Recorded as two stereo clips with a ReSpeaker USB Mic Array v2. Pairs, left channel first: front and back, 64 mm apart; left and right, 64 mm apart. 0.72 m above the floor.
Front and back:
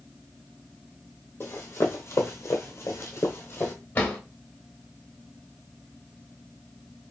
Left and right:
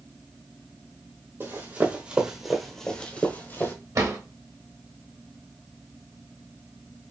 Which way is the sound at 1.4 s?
45° right.